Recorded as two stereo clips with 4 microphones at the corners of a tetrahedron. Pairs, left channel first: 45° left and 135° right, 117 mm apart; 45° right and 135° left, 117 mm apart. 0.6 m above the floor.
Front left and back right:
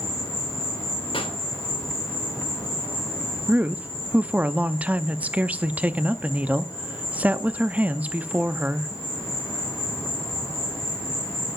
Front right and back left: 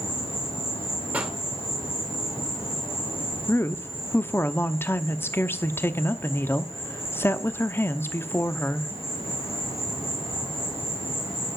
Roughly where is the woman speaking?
Right.